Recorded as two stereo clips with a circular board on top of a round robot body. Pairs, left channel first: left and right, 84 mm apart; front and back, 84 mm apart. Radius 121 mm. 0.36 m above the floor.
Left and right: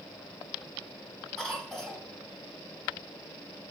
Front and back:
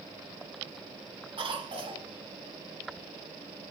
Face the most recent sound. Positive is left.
turn(degrees=180)